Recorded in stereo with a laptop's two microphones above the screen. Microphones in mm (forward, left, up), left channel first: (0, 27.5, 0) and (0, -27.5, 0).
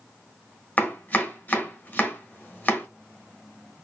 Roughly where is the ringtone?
No ringtone in this recording.